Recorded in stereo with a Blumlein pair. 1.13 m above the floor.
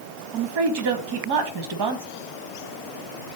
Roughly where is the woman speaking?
Ahead right.